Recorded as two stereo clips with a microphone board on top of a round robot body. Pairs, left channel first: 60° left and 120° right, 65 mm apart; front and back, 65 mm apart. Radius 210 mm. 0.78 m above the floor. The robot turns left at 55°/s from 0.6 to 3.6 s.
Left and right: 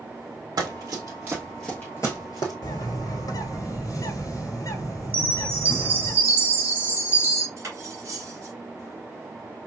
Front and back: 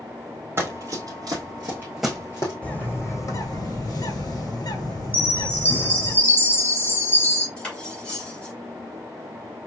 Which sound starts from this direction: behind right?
Running footsteps, at 0.6 s.